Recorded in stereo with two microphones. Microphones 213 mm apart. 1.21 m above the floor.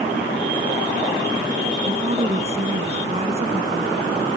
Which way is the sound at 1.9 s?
30° right (ahead or behind).